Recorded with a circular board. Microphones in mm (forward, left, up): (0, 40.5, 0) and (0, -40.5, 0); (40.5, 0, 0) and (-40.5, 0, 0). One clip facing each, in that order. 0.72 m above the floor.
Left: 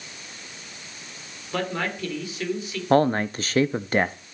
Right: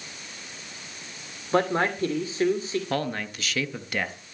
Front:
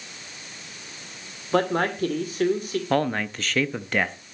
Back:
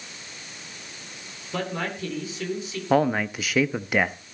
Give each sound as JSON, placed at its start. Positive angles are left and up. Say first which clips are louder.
{"t": 1.5, "sound": "a man speaking", "louder": "right 5 dB, front 7 dB", "azimuth_deg": -35, "distance_m": 2.5}
{"t": 2.9, "sound": "a man speaking", "louder": "left 9 dB, back 4 dB", "azimuth_deg": 105, "distance_m": 0.6}